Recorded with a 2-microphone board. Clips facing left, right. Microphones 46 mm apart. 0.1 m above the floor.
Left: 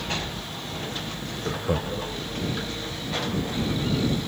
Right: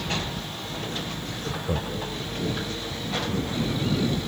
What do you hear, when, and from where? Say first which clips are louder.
1.4 s laughter: left 3 dB; 20° left (ahead or behind)